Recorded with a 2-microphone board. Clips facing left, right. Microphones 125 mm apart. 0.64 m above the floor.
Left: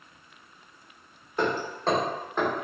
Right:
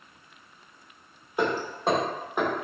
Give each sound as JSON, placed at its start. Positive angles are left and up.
{"t": 1.4, "sound": "hammering", "side_deg": -10, "distance_m": 0.9}